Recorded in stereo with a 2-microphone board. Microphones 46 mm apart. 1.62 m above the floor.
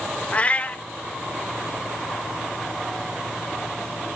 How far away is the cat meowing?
About 1.0 m.